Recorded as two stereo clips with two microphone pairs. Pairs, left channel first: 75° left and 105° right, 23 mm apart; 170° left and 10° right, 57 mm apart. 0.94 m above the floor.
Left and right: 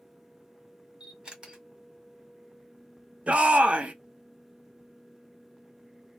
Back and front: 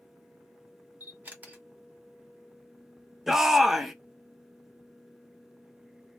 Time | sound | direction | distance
1.0 | a camera shutter | 70° right | 1.3 m
3.3 | a shout | 100° right | 0.6 m